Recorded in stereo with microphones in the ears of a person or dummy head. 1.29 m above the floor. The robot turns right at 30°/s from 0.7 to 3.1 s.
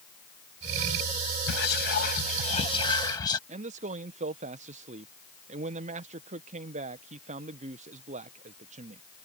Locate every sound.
1.5 s whispering: 110° left; by 3.4 s 160° left
3.5 s a man speaking: 35° right (ahead or behind)